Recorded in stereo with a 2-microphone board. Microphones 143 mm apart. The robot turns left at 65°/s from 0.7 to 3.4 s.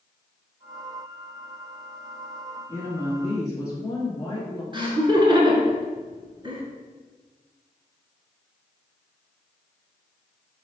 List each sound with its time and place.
2.7 s a woman speaking: 15° left (ahead or behind), 1.1 m; by 4.6 s 25° left (ahead or behind), 1.1 m
4.7 s laughter: 35° right (ahead or behind), 1.2 m